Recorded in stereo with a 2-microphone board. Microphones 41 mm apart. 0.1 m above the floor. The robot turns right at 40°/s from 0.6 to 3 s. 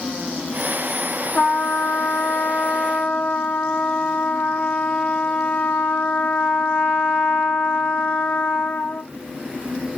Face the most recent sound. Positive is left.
turn(degrees=100)